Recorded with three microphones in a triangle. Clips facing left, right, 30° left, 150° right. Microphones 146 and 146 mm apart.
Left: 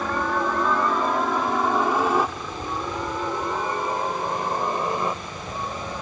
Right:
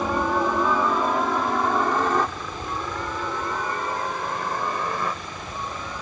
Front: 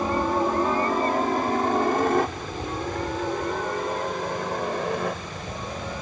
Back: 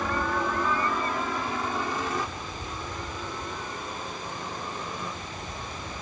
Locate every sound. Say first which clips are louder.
0.0 s a helicopter: right 2 dB, front 5 dB; 15° right; by 6.0 s 25° left